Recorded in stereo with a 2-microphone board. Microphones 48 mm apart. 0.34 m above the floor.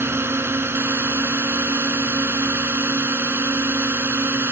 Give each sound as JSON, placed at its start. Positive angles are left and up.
{"t": 0.0, "sound": "a drone", "side_deg": -55}